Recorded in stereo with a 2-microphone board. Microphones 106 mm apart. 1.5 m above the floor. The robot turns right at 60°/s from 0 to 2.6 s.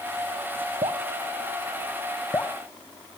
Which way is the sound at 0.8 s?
60° right (ahead or behind).